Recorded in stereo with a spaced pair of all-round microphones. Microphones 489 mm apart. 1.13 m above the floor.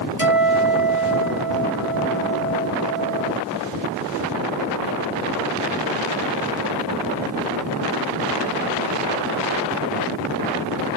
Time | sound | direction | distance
0.2 | a guitar | 45° left (ahead or behind) | 3.5 m